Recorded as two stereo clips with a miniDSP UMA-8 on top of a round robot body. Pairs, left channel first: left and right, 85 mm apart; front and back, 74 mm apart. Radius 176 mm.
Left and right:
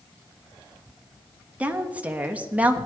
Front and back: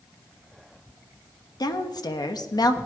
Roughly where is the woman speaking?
Ahead.